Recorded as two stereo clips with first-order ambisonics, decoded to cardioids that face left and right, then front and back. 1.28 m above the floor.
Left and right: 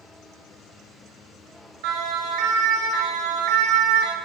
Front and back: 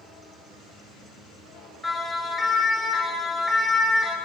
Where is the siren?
85° right, 9 m.